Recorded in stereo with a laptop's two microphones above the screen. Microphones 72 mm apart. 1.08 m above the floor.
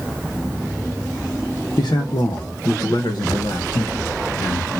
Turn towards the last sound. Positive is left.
turn(degrees=45)  # may be behind; listen again after turning